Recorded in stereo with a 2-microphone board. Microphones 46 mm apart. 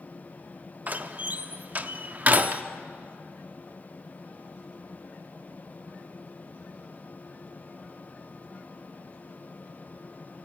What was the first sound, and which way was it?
A door slam, 35° right (ahead or behind).